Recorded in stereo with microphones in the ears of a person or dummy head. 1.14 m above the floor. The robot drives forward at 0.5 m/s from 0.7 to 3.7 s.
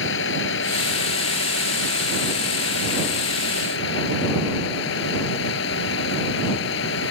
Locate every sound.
0.0 s a vehicle: 85° left; by 7.1 s 80° left